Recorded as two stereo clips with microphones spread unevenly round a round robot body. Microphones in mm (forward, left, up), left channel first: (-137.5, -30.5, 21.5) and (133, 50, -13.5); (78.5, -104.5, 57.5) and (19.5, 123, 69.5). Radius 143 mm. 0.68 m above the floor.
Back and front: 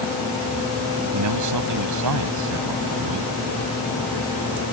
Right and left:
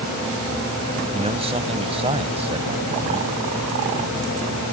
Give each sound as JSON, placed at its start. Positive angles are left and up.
{"t": 1.1, "sound": "a man speaking", "azimuth_deg": 40}